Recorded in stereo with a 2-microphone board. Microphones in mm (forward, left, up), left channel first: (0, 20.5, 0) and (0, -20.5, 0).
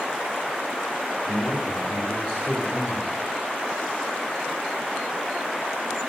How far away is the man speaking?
About 4 m.